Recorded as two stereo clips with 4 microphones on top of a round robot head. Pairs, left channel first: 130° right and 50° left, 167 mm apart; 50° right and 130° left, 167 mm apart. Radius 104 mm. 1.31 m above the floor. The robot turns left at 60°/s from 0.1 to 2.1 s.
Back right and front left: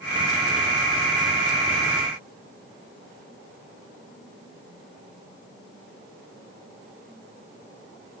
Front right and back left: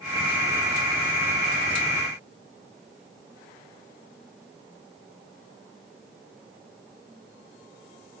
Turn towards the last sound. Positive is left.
No sound to turn to.